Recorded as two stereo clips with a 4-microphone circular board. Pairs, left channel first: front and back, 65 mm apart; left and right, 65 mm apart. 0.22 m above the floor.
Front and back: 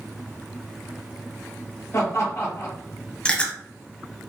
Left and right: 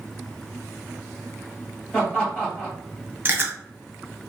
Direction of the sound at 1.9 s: 25° left.